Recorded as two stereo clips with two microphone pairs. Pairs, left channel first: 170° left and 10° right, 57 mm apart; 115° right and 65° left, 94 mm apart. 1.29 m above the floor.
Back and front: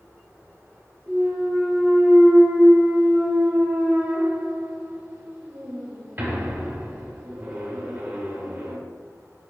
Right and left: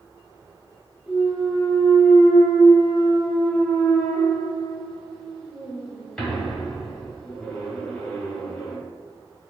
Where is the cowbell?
No cowbell in this recording.